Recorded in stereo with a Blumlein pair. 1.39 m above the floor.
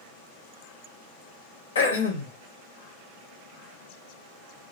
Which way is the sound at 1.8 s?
65° left.